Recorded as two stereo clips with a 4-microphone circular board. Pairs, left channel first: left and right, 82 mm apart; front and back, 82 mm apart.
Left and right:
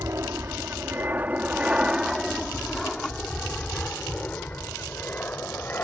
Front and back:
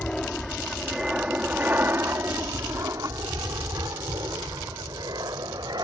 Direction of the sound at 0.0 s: 75° right.